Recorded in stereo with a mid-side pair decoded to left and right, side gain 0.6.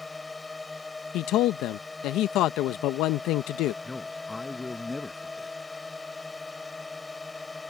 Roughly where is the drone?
Ahead.